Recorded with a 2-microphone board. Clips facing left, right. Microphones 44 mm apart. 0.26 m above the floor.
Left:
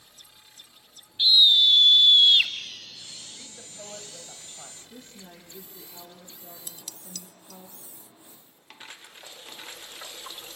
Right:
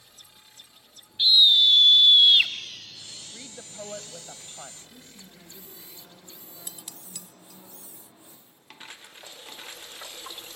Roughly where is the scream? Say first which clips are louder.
Even; centre.